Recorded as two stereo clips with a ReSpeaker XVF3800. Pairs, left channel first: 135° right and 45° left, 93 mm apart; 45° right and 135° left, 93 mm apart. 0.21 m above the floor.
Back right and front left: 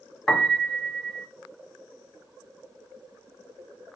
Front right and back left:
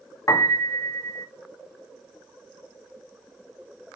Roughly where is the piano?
Ahead right.